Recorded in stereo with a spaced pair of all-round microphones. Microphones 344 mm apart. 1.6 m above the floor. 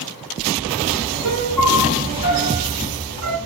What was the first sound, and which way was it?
A piano, 60° right (ahead or behind).